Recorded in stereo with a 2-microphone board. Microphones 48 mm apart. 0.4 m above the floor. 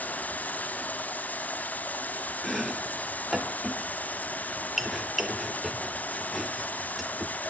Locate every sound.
0.0 s running water: 35° left (ahead or behind), 0.9 m
2.4 s chopping: centre (ahead or behind), 1.0 m